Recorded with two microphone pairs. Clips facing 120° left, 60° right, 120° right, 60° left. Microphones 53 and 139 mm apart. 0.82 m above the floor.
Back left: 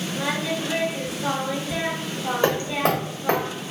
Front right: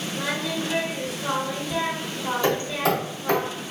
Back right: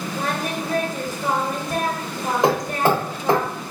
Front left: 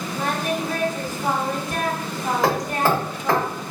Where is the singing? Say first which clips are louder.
Back left 2 dB, front left 2 dB; 160° right, 1.6 m.